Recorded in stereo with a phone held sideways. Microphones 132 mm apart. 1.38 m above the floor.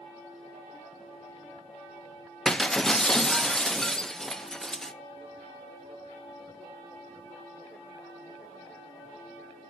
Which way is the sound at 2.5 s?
5° left (ahead or behind).